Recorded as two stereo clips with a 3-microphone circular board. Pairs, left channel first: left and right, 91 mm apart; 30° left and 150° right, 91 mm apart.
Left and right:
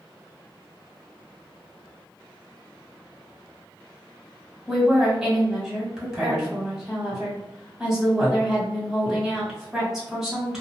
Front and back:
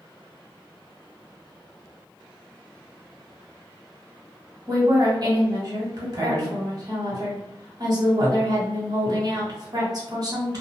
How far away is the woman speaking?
About 1.4 m.